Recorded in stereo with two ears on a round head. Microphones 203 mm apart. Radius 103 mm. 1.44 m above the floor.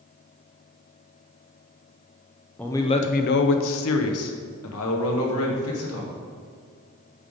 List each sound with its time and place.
2.6 s a man speaking: 5° left (ahead or behind), 0.6 m; by 6.1 s 70° left (ahead or behind), 2 m